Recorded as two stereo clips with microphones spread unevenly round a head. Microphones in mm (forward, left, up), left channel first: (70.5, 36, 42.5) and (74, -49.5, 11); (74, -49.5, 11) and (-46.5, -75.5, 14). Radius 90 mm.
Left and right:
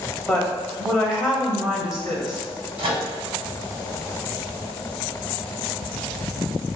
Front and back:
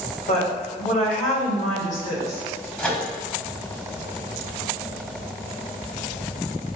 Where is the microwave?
65° right, 1.2 m.